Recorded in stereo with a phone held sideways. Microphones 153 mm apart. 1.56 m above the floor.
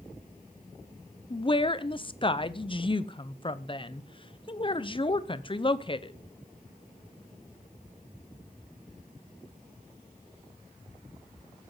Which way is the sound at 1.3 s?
35° left (ahead or behind).